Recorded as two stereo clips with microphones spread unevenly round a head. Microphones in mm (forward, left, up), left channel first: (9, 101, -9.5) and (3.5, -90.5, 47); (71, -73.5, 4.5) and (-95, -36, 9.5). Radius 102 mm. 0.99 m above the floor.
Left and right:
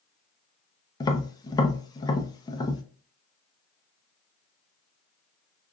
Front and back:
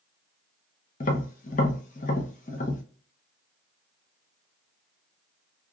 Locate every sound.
1.0 s tapping: 30° left, 0.6 m